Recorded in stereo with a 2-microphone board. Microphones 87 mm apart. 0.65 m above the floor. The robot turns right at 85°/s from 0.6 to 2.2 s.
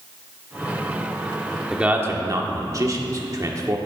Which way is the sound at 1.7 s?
5° right (ahead or behind).